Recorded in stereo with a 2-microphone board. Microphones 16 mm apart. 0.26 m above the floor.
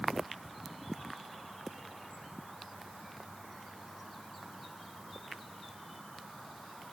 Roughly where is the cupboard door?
No cupboard door in this recording.